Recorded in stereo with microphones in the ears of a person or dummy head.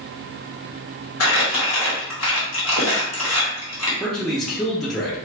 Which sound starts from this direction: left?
Crumpling, at 1.2 s.